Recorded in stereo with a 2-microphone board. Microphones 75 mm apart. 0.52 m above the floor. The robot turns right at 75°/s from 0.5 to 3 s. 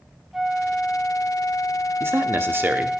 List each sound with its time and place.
0.3 s a flute: 5° right, 0.6 m; by 3.0 s straight behind, 0.6 m
2.0 s a man speaking: 105° right, 0.7 m; by 2.9 s 35° right, 0.7 m